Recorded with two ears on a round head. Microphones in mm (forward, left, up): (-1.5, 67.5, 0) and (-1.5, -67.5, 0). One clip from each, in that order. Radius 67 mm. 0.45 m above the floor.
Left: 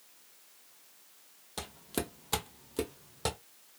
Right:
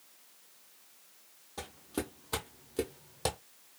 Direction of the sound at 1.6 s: 60° left (ahead or behind).